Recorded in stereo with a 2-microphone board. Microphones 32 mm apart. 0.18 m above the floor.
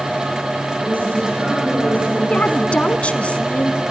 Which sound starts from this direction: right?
A woman speaking, at 0.8 s.